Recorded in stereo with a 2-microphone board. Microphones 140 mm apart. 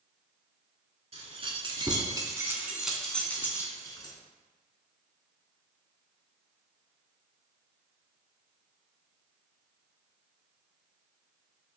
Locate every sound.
1.1 s keys jangling: 45° right (ahead or behind), 1.2 m; by 4.1 s 30° left (ahead or behind), 1.1 m